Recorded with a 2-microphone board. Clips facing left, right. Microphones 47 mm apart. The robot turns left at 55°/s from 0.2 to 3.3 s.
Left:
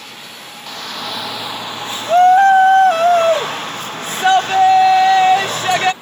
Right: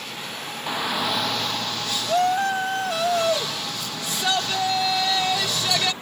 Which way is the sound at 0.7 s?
155° right.